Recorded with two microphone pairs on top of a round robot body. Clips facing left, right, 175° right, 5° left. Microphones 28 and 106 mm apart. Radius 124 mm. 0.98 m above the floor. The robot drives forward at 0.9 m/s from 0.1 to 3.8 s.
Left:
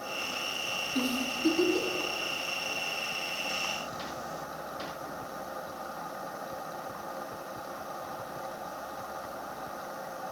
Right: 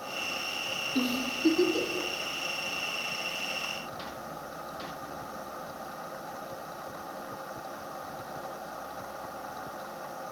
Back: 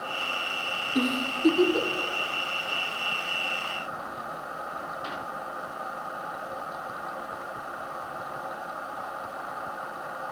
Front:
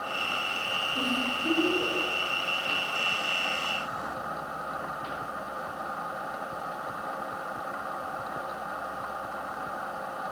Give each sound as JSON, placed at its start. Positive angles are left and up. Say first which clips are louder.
{"t": 0.9, "sound": "a giggle", "louder": "right 2 dB, back 5 dB", "azimuth_deg": -160, "distance_m": 3.5}